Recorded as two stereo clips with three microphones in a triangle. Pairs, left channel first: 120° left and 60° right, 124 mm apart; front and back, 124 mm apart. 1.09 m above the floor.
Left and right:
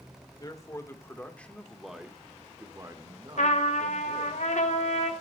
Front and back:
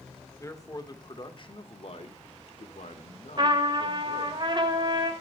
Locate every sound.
0.4 s a man speaking: 65° left, 1.9 m; by 4.4 s 25° right, 2 m
3.4 s a trumpet: 130° left, 2 m